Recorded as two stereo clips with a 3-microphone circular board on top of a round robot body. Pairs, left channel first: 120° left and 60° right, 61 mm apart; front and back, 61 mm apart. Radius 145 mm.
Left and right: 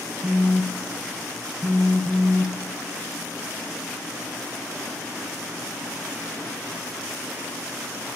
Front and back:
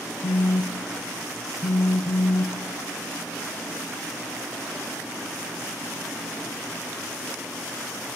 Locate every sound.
0.2 s a phone buzzing: 35° left, 0.6 m